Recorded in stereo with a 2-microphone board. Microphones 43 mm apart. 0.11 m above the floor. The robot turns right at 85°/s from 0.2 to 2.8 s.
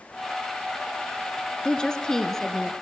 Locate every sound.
1.6 s a woman speaking: 20° left (ahead or behind), 1.1 m; by 2.7 s centre (ahead or behind), 1.1 m